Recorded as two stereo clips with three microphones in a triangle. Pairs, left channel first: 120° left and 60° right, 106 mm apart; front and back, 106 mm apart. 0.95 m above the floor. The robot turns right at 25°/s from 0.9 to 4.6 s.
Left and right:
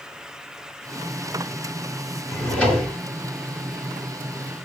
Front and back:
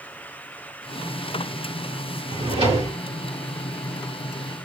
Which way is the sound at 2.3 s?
165° right.